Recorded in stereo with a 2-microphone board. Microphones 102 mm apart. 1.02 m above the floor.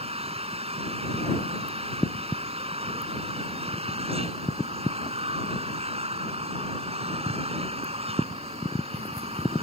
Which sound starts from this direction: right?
An engine running, at 0.0 s.